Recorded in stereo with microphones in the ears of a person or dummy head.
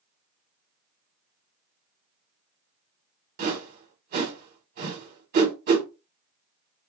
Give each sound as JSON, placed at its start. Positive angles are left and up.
{"t": 3.4, "sound": "a whoosh", "side_deg": -50, "distance_m": 1.3}